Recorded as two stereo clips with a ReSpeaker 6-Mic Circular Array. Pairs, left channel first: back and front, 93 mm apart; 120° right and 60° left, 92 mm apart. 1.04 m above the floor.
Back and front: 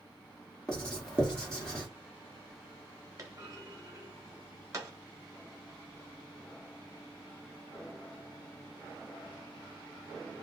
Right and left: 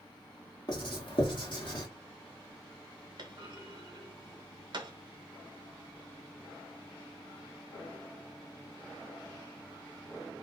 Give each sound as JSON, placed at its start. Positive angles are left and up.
{"t": 0.7, "sound": "writing", "azimuth_deg": -100, "distance_m": 1.3}
{"t": 3.2, "sound": "a clunk", "azimuth_deg": 45, "distance_m": 1.1}